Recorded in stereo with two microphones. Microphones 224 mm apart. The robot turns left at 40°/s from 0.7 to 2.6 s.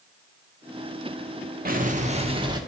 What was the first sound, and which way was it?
An explosion, 120° right.